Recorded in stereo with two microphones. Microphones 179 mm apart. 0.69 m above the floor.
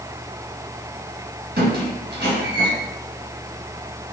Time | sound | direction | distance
1.6 | a squeak | 65° right (ahead or behind) | 1.6 m